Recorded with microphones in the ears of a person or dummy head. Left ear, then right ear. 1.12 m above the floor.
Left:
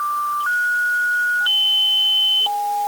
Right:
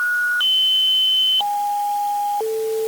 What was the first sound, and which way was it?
Only background noise.